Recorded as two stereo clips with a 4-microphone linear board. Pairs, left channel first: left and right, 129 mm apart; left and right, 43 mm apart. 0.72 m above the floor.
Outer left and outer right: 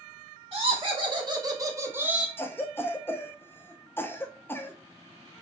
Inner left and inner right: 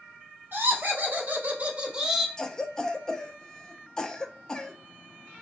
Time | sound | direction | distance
0.5 | laughter | 45° right (ahead or behind) | 1.5 m
2.4 | a cough | 15° left (ahead or behind) | 0.5 m